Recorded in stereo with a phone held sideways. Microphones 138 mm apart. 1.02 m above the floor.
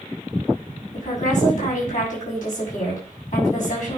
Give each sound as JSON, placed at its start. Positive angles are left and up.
{"t": 0.9, "sound": "a woman speaking", "side_deg": 65, "distance_m": 6.5}